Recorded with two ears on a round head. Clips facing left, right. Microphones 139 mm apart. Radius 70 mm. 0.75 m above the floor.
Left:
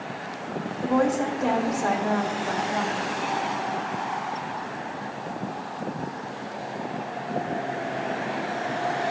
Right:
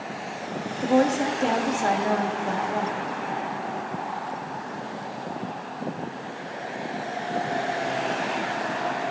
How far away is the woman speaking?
About 1.1 m.